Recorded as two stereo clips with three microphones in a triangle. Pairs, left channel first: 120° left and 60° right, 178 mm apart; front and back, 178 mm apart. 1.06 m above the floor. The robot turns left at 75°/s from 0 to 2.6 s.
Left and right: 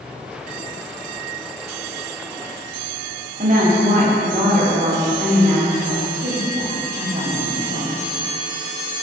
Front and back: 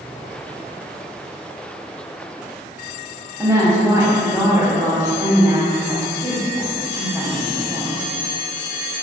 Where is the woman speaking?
105° right, 0.5 m.